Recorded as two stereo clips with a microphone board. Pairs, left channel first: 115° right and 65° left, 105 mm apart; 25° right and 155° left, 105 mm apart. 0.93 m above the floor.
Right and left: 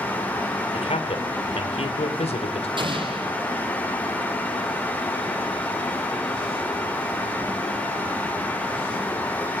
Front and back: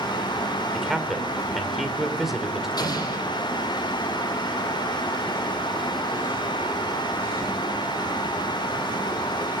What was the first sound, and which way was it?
A man speaking, 115° right.